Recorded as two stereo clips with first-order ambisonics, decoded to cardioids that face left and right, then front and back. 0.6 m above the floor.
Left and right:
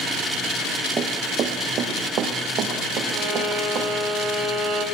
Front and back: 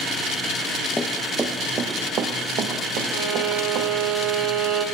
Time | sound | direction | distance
1.0 | running footsteps | 65° right | 0.6 m
3.1 | a violin | 145° right | 1.2 m